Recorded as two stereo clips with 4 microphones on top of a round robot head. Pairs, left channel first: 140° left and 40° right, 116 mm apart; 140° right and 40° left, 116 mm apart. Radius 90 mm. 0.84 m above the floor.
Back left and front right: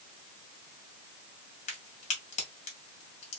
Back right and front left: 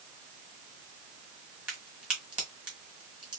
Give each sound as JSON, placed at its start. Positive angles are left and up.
{"t": 1.7, "sound": "a crack", "azimuth_deg": 120, "distance_m": 1.7}